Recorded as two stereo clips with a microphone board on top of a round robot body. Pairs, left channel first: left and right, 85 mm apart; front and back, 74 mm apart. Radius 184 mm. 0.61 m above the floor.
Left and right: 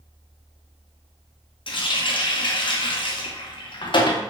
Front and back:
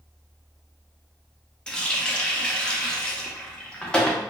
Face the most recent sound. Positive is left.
turn(degrees=75)